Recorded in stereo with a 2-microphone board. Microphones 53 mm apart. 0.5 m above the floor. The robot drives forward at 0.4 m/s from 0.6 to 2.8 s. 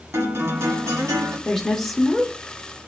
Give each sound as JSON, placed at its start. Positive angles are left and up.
{"t": 0.1, "sound": "a guitar", "side_deg": -60, "distance_m": 1.4}
{"t": 1.4, "sound": "a woman speaking", "side_deg": 5, "distance_m": 0.9}